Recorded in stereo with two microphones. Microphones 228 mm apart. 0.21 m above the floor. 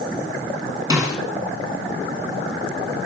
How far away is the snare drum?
About 2.5 m.